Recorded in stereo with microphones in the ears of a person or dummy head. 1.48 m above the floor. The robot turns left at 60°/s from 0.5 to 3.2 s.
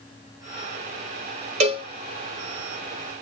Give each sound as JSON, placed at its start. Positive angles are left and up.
{"t": 1.6, "sound": "a cowbell", "side_deg": -40, "distance_m": 0.7}